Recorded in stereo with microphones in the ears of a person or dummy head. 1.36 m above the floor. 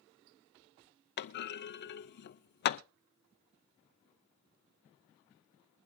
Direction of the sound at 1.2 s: 55° left (ahead or behind).